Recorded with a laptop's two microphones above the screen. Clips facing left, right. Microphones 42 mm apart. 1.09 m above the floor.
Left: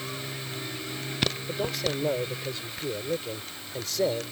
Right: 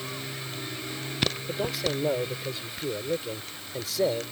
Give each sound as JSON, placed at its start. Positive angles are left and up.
{"t": 1.5, "sound": "a man speaking", "side_deg": -5}